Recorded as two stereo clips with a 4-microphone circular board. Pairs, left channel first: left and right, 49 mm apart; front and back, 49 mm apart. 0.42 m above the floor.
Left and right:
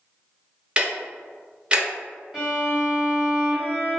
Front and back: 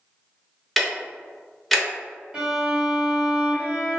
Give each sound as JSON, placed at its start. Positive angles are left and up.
{"t": 0.8, "sound": "ticking", "azimuth_deg": -70, "distance_m": 0.6}
{"t": 2.3, "sound": "a violin", "azimuth_deg": -155, "distance_m": 1.2}